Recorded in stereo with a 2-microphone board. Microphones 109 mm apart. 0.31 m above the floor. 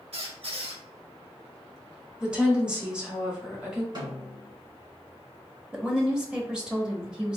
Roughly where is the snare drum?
Right.